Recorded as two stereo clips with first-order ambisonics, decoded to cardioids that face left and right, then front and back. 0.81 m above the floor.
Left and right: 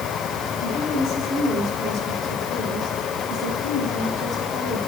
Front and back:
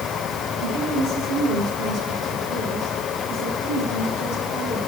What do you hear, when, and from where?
0.6 s a woman speaking: 160° left, 8 m